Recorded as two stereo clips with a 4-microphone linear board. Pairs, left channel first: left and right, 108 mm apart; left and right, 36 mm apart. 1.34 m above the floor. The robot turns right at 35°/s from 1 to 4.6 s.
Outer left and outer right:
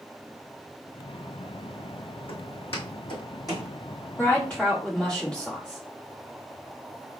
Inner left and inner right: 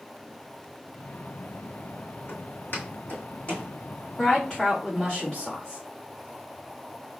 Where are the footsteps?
60° left (ahead or behind), 2.5 m; by 3.7 s 30° left (ahead or behind), 2.5 m.